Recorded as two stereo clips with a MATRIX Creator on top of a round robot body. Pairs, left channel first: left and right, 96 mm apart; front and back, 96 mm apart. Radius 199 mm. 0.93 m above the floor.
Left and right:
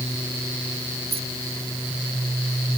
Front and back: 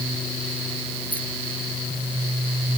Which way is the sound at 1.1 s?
75° right.